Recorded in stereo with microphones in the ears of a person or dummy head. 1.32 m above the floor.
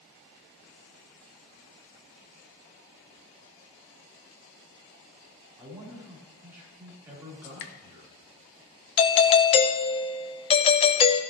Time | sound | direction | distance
5.6 | a man speaking | 10° right (ahead or behind) | 3.5 m
7.4 | dripping | 65° left (ahead or behind) | 1.0 m
9.0 | a doorbell | 30° left (ahead or behind) | 0.6 m